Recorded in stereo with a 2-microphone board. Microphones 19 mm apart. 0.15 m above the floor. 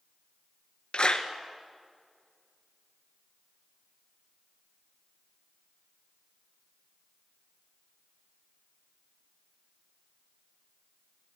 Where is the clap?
50° left (ahead or behind), 1.9 m.